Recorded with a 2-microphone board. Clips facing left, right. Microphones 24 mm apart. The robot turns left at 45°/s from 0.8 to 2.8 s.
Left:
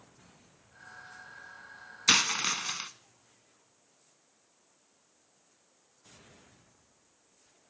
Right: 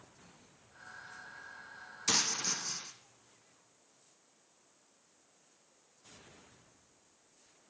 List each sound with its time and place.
2.1 s a dropped coin: 95° left, 0.8 m; by 2.9 s 60° left, 0.8 m